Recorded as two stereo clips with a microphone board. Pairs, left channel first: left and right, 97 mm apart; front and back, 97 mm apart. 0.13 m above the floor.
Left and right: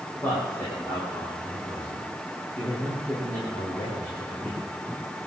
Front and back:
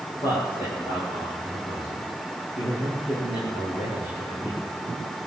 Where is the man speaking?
30° left, 7.5 m.